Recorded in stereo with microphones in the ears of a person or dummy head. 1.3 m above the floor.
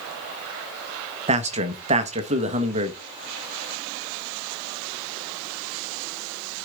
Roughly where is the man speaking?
Right.